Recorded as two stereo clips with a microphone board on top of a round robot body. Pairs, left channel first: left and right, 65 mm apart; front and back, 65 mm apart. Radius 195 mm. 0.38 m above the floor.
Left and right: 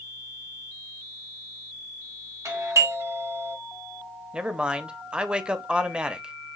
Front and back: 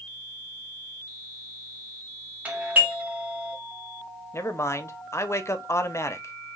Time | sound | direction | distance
2.5 | a doorbell | 115° right | 2.5 m
4.3 | a man speaking | 20° right | 1.1 m